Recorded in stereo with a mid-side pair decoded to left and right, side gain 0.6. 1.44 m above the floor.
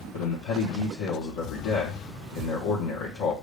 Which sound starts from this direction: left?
A man speaking, at 0.1 s.